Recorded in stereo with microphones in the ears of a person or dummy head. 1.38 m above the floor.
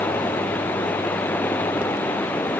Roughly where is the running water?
Centre.